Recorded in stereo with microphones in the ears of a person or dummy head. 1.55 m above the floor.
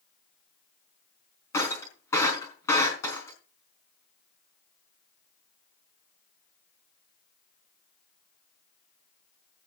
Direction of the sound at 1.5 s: 15° left (ahead or behind).